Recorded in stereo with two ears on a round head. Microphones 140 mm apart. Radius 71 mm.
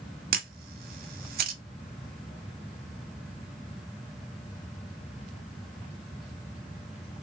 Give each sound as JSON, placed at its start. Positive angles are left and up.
{"t": 0.3, "sound": "a camera shutter", "side_deg": -65, "distance_m": 1.2}